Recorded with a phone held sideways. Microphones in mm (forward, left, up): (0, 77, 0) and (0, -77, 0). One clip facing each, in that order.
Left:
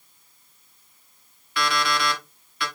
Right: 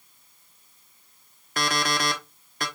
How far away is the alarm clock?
About 1.0 m.